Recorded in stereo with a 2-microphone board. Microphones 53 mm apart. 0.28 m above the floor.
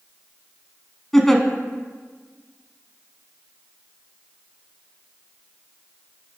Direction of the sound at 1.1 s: 5° left (ahead or behind).